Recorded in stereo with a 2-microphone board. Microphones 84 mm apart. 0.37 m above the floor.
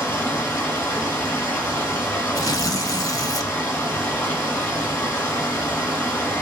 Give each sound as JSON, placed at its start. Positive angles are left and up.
{"t": 0.0, "sound": "running water", "side_deg": 30, "distance_m": 1.7}
{"t": 2.4, "sound": "tearing paper", "side_deg": 45, "distance_m": 0.5}